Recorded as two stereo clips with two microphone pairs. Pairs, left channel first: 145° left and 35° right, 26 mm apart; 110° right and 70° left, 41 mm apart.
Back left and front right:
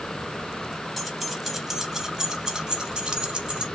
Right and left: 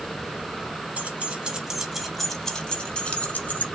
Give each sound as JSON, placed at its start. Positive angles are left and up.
{"t": 1.0, "sound": "keys jangling", "azimuth_deg": 65, "distance_m": 0.9}